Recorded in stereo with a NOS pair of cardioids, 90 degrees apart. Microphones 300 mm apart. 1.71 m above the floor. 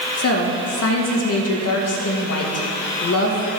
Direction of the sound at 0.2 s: 55° left.